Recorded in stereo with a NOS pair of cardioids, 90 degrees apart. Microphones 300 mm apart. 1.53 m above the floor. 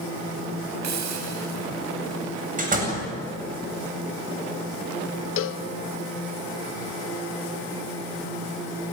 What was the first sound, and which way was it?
A hiss, 65° right.